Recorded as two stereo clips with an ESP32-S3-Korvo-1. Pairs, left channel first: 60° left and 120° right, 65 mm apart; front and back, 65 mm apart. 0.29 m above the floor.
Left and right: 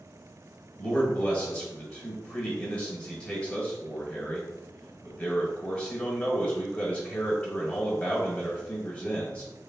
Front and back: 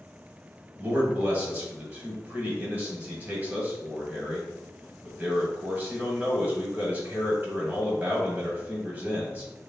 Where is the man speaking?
125° left, 1.5 m.